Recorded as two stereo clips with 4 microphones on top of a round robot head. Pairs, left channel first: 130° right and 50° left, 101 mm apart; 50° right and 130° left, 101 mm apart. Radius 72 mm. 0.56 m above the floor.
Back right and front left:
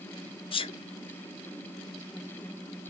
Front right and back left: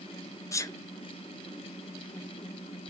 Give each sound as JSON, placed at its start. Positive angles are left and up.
{"t": 0.5, "sound": "a sneeze", "azimuth_deg": -105, "distance_m": 1.4}